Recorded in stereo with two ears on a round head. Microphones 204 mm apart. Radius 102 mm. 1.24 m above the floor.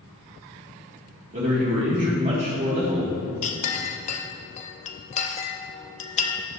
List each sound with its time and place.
1.3 s a man speaking: 35° right (ahead or behind), 3 m
3.4 s a clink: 30° left (ahead or behind), 0.7 m